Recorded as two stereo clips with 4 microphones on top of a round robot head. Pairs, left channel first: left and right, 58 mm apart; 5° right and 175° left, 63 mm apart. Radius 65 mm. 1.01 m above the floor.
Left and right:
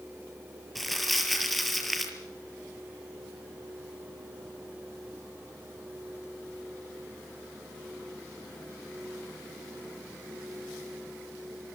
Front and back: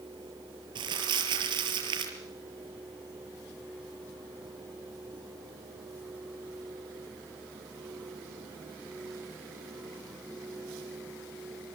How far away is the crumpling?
About 5 m.